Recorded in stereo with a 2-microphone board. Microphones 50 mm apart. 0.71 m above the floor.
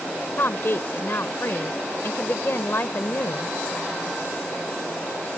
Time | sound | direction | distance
0.4 | a woman speaking | 50° left (ahead or behind) | ?